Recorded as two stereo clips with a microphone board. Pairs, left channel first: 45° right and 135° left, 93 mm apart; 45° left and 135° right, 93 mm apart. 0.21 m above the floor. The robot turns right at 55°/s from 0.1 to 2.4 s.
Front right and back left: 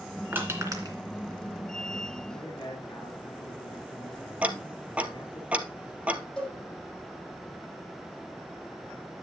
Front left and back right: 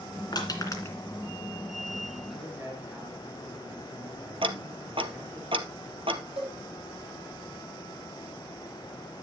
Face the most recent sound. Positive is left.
turn(degrees=-125)